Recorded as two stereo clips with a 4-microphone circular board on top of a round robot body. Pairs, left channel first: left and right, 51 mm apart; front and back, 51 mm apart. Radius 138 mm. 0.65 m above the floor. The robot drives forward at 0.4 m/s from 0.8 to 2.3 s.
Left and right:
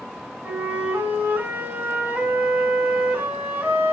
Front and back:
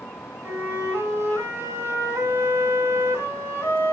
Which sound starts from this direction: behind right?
A flute, at 0.4 s.